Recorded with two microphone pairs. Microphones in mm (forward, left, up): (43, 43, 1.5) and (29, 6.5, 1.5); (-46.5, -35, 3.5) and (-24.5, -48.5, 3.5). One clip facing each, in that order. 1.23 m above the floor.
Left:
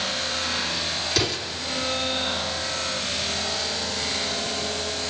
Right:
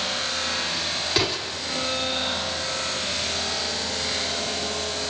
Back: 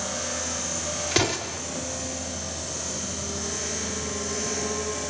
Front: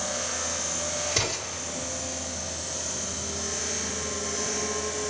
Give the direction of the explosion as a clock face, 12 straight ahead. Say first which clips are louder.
Right 2 dB, back 8 dB; 6 o'clock.